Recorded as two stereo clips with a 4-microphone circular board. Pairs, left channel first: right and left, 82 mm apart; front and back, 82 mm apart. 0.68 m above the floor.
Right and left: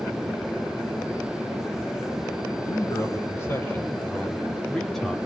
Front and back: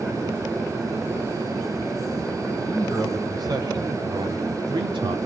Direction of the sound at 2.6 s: 140° right.